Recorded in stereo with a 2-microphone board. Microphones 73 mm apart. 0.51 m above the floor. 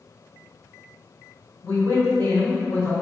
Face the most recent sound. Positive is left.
turn(degrees=55)  # may be behind; listen again after turning